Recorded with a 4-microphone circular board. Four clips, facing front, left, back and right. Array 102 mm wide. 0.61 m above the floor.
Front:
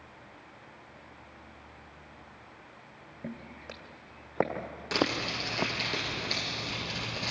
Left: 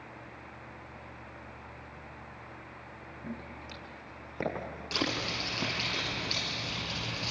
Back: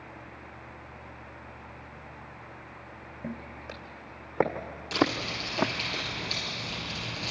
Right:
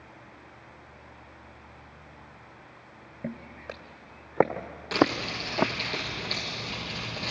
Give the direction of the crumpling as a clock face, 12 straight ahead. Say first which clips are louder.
Right 10 dB, back 3 dB; 1 o'clock.